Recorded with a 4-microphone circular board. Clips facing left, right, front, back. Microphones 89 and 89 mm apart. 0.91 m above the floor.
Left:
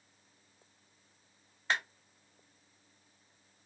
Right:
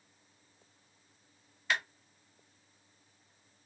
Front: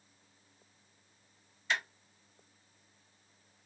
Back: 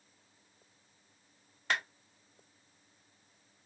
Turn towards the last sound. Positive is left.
turn(degrees=145)